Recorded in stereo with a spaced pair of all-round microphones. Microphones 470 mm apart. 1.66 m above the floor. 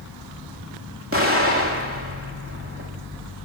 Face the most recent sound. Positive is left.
turn(degrees=-25)  # may be behind; listen again after turning